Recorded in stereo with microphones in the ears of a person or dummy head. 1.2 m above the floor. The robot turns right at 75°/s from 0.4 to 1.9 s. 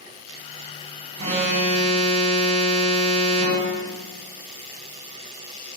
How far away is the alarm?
About 1.2 m.